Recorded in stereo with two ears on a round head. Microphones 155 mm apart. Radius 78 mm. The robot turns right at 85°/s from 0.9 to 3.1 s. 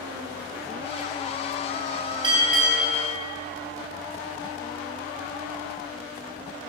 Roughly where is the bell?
Ahead right.